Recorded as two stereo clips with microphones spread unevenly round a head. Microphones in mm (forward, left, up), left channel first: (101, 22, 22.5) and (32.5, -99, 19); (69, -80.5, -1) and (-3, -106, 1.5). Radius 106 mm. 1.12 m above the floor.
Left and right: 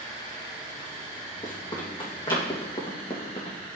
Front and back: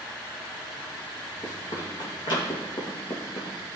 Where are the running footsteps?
10° left, 3 m; by 3.6 s 25° left, 1.9 m.